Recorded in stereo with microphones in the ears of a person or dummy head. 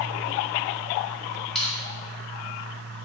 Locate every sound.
1.6 s crushing: 5° left (ahead or behind), 0.8 m